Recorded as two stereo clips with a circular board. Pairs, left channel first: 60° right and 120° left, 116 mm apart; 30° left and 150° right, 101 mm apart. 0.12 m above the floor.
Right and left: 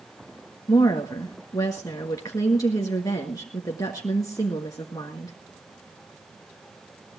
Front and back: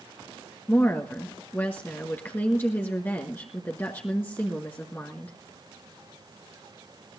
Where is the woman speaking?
25° right, 1.6 m.